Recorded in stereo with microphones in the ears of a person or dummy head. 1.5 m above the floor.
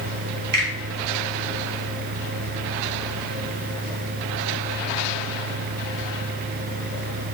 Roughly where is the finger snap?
Right.